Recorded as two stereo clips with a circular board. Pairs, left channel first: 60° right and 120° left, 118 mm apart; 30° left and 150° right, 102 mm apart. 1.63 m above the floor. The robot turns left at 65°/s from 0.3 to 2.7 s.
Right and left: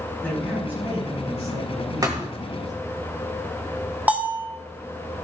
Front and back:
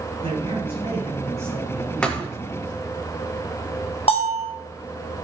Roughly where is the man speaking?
Behind right.